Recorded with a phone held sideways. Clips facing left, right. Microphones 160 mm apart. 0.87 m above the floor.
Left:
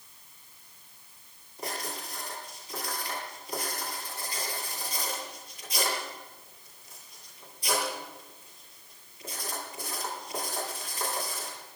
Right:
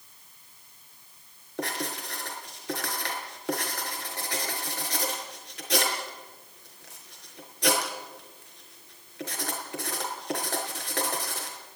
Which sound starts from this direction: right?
Writing, at 1.6 s.